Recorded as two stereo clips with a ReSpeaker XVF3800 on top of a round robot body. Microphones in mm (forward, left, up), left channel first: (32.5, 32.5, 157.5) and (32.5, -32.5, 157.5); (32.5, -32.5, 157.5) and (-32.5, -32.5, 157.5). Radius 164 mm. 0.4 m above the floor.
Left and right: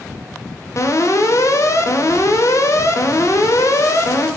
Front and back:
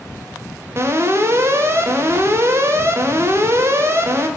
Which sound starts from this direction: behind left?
An alarm, at 0.8 s.